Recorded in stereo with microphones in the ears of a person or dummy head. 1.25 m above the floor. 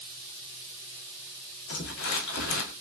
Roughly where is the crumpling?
Left.